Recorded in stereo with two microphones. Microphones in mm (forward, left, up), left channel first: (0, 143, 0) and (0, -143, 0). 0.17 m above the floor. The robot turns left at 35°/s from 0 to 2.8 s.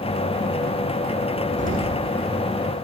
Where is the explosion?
25° right (ahead or behind), 5.5 m; by 2.0 s 40° right (ahead or behind), 5.5 m.